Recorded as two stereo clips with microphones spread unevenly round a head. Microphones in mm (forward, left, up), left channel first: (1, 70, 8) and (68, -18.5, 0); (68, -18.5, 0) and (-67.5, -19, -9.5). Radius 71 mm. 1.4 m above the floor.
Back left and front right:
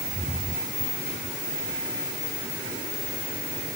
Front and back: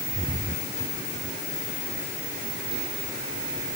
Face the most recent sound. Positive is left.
No sound to turn to.